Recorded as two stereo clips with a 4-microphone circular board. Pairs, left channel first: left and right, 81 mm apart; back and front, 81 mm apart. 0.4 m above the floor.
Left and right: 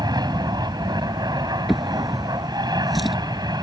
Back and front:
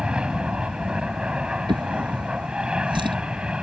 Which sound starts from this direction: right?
An aircraft, at 0.0 s.